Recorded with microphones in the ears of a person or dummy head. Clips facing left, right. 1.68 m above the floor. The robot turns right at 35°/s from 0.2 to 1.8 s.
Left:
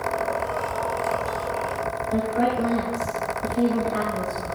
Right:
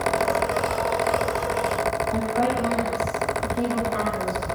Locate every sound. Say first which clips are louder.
2.1 s a woman speaking: left 4 dB; 45° left (ahead or behind), 5 m